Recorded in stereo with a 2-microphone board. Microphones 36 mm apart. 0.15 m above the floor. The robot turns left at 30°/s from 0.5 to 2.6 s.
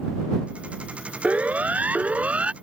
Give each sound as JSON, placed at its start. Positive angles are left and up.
{"t": 1.2, "sound": "a siren", "side_deg": -45}